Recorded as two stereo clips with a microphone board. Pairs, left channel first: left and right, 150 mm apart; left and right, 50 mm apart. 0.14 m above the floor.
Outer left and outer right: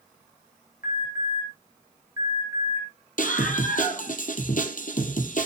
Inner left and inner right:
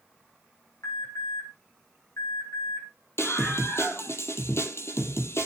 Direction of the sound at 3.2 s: 60° left (ahead or behind).